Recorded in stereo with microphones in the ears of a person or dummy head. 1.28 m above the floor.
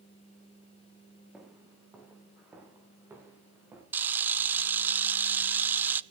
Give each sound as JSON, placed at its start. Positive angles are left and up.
{"t": 1.3, "sound": "footsteps", "side_deg": -5, "distance_m": 5.5}
{"t": 3.9, "sound": "a camera shutter", "side_deg": -10, "distance_m": 0.5}